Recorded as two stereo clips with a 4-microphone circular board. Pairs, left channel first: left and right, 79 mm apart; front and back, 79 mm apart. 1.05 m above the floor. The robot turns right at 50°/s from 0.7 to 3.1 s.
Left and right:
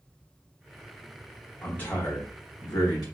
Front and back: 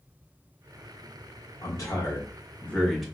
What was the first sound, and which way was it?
A man speaking, 20° left.